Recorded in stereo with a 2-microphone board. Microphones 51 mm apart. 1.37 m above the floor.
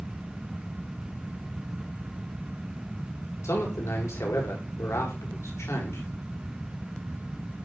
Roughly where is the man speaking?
Left.